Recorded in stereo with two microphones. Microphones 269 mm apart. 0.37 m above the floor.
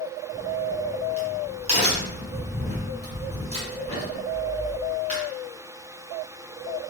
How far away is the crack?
About 1.1 m.